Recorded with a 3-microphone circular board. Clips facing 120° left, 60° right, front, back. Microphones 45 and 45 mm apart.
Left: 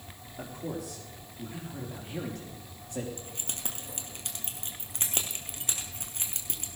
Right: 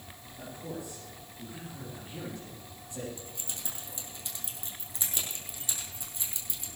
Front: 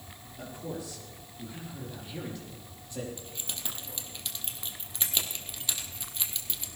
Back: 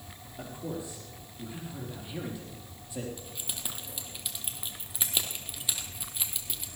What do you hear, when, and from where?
0.4 s a man speaking: 115° left, 5.5 m; by 3.1 s 100° left, 5 m
3.2 s keys jangling: 100° left, 2 m